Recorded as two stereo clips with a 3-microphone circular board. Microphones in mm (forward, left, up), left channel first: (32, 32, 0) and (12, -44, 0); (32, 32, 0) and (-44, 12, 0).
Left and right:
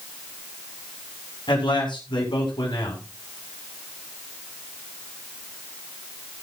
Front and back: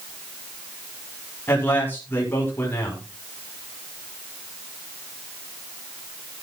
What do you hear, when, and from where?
1.5 s a man speaking: 80° left, 6.5 m